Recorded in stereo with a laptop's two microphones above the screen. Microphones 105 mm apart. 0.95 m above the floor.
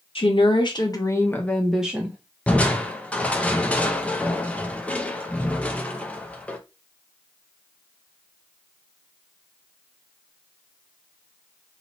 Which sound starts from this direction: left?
A woman speaking, at 0.1 s.